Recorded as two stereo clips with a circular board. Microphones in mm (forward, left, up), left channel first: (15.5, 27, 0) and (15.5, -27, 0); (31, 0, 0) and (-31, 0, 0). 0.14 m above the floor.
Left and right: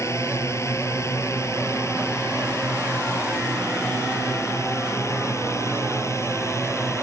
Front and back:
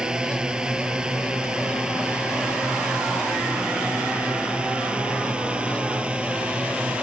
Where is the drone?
105° left; by 7.0 s 110° left.